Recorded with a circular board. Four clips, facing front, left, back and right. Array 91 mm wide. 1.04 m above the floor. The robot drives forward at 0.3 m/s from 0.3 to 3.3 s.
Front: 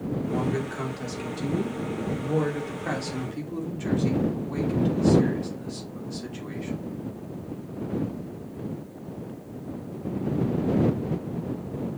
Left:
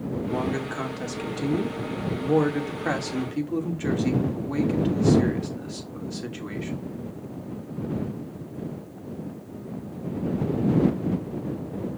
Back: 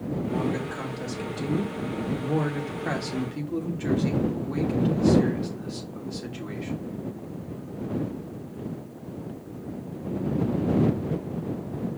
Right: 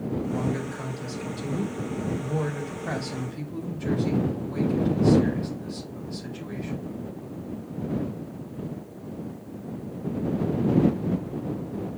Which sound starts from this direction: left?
A man speaking, at 0.3 s.